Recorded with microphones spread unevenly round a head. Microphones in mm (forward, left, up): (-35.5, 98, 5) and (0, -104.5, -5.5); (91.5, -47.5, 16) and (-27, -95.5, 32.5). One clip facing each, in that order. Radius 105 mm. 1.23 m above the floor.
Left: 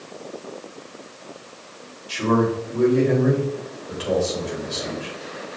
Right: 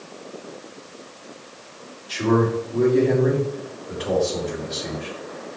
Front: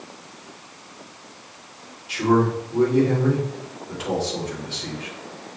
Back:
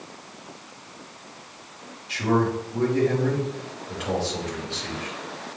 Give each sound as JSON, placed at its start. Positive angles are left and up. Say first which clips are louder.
{"t": 2.1, "sound": "a man speaking", "louder": "even, front 3 dB", "azimuth_deg": 40, "distance_m": 2.5}